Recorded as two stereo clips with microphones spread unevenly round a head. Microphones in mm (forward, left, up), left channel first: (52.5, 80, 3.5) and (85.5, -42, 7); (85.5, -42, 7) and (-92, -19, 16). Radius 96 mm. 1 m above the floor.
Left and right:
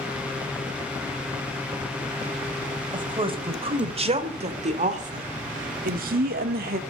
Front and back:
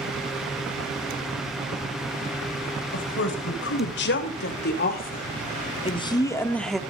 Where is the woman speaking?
25° right, 5 m; by 6.8 s 100° right, 2 m.